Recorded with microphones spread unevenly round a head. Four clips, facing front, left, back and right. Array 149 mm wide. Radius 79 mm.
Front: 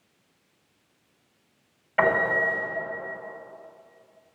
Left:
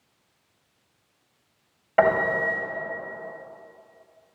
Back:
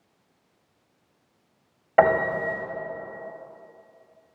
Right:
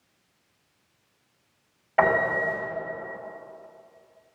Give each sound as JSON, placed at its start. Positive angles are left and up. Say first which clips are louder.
{"t": 2.0, "sound": "a piano", "louder": "left 2 dB, back 3 dB", "azimuth_deg": 165, "distance_m": 3.0}